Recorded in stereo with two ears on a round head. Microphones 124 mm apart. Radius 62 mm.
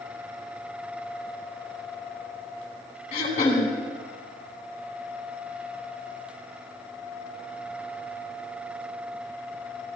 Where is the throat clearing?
50° left (ahead or behind), 4 m.